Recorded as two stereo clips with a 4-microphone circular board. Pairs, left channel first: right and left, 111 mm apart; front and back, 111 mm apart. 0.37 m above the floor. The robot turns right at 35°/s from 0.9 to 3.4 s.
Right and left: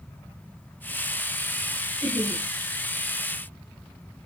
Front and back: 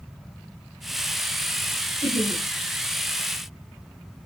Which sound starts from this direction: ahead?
Laughter, at 2.0 s.